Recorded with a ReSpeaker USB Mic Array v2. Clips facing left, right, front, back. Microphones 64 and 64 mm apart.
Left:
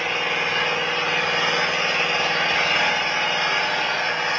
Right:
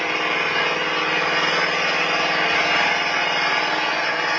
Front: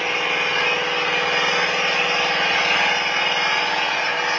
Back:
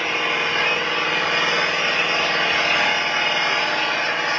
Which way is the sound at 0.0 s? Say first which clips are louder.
Right 2 dB, even; 90° right.